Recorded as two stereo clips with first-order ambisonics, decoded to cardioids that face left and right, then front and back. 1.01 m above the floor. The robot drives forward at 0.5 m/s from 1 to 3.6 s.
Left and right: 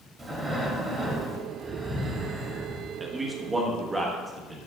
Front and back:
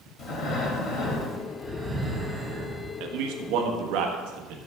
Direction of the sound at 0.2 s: 15° right.